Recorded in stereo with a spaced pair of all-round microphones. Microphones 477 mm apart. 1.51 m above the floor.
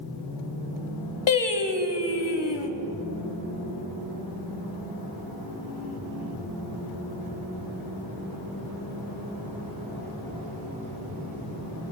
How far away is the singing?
About 1.0 m.